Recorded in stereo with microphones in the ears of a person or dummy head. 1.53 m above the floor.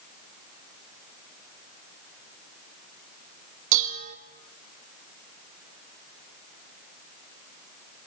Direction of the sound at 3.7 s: 40° right (ahead or behind).